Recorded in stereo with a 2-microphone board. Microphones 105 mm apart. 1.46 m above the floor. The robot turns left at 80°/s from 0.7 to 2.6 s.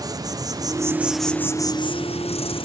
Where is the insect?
140° right, 1.0 m; by 2.7 s 65° left, 1.0 m.